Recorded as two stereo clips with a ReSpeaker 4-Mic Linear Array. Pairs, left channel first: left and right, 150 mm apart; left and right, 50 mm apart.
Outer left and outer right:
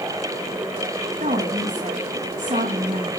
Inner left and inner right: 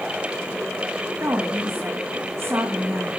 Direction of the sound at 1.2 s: 55° right (ahead or behind).